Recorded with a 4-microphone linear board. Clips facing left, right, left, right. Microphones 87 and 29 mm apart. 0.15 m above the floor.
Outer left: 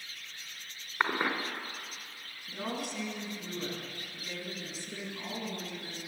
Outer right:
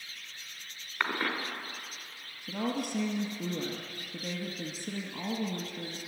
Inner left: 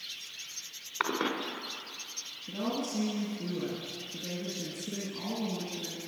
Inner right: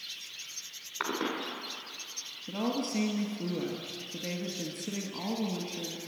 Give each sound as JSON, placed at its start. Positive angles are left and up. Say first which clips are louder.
{"t": 1.0, "sound": "a cough", "louder": "outer left 2 dB, inner left 2 dB", "side_deg": 20, "distance_m": 1.3}
{"t": 2.5, "sound": "a woman speaking", "louder": "outer right 5 dB, inner right 2 dB", "side_deg": -65, "distance_m": 2.5}